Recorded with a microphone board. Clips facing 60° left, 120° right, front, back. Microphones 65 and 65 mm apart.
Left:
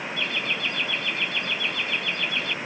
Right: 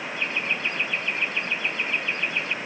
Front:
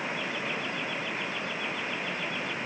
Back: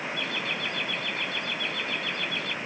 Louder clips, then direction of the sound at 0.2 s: Right 1 dB, back 1 dB; straight behind.